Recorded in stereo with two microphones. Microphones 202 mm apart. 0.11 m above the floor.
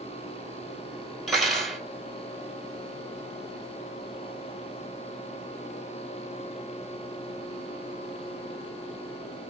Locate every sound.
1.3 s cutlery clinking: centre (ahead or behind), 1.3 m